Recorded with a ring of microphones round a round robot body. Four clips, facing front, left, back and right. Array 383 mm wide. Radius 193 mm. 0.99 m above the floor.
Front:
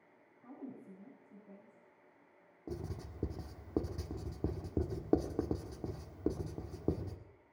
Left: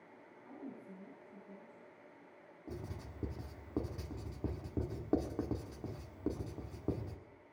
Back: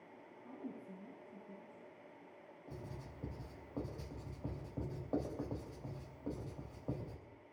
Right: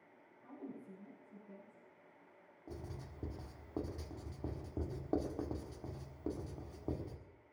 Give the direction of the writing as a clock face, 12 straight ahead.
12 o'clock.